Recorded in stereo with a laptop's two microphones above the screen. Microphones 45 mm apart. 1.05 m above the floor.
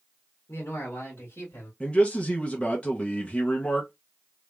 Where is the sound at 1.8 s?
25° left (ahead or behind), 0.6 m.